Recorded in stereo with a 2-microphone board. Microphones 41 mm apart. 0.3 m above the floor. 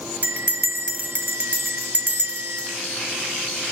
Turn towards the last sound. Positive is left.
turn(degrees=-45)  # may be behind; listen again after turning